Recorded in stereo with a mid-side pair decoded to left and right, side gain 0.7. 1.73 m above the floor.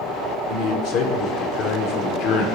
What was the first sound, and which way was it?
A man speaking, 60° left.